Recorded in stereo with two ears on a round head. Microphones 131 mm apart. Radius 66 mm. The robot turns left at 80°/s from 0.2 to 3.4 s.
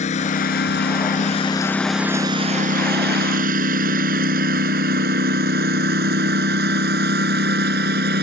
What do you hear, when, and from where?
0.0 s a lawn mower: 55° left (ahead or behind); by 8.2 s 75° right (ahead or behind)